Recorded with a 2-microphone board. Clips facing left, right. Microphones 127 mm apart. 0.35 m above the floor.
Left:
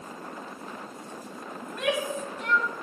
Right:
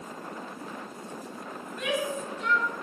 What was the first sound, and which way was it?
A shout, 75° left (ahead or behind).